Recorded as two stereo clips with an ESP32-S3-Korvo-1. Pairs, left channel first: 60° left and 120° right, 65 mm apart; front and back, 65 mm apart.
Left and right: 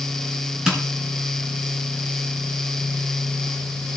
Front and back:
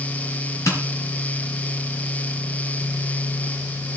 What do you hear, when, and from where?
0.7 s tapping: 40° right, 2.5 m